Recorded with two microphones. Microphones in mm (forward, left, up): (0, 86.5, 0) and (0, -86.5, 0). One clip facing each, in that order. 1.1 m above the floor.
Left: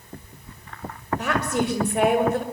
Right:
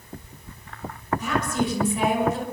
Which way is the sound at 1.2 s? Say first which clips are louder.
Left 2 dB; 65° left (ahead or behind).